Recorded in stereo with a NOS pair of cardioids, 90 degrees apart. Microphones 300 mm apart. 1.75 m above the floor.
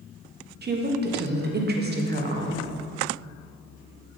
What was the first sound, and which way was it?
A woman speaking, 35° right.